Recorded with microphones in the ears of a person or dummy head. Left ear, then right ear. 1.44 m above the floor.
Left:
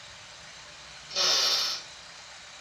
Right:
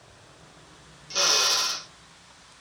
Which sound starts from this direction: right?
A drill, at 1.1 s.